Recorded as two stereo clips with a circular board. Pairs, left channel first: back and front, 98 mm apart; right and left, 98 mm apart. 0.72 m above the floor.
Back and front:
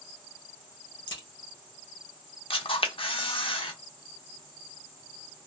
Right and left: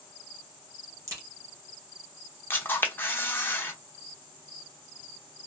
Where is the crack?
145° left, 1.6 m.